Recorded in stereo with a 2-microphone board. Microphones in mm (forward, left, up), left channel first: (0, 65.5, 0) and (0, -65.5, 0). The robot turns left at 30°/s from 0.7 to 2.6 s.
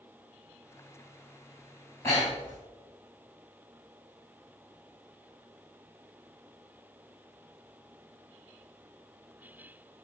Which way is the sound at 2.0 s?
20° left (ahead or behind).